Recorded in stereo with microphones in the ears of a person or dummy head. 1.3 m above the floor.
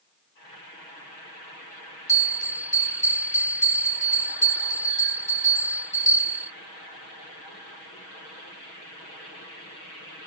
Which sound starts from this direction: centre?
A bell, at 2.1 s.